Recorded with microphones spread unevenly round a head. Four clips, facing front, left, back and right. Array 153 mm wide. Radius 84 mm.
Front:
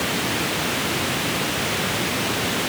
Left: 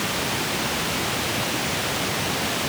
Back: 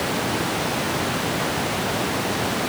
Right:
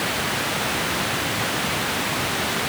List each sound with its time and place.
Only background noise.